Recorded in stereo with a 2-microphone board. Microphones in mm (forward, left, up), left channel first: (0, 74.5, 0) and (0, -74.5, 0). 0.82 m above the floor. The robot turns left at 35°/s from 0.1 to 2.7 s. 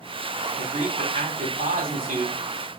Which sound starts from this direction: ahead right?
A man speaking, at 0.6 s.